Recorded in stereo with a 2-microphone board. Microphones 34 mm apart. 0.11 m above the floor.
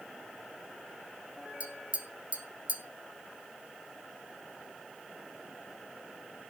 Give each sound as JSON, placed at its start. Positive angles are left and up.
{"t": 1.6, "sound": "tapping", "side_deg": -40, "distance_m": 1.1}